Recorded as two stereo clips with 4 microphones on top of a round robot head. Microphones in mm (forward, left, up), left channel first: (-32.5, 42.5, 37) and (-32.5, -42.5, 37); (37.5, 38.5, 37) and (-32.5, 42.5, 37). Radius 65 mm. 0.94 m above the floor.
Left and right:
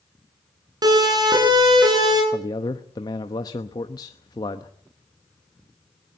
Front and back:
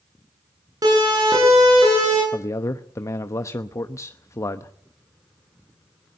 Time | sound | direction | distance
0.8 | a siren | 130° right | 10 m
2.3 | a man speaking | 40° left | 1.0 m